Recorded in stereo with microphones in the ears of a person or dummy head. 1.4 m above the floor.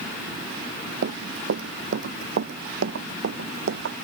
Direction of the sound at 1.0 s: 70° right (ahead or behind).